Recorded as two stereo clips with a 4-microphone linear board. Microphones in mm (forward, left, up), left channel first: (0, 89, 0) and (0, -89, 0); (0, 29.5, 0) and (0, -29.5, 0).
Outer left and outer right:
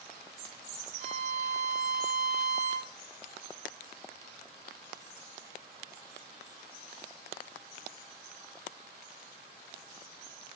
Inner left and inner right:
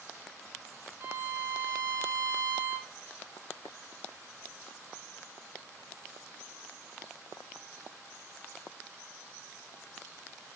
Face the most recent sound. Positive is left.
turn(degrees=-40)  # may be behind; listen again after turning